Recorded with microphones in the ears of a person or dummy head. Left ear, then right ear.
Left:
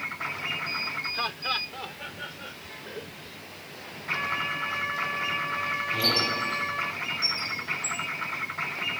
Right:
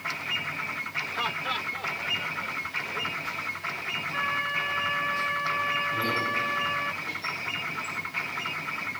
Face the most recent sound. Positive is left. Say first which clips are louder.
# left 2 dB
turn(degrees=50)  # may be behind; listen again after turning